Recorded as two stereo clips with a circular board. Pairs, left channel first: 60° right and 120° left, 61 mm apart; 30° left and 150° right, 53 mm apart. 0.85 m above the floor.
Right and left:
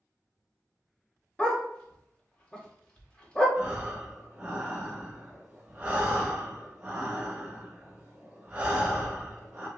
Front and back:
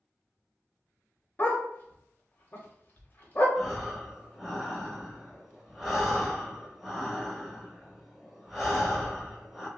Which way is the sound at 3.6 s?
125° left.